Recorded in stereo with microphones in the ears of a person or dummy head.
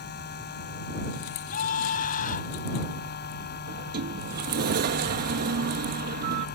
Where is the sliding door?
50° right (ahead or behind).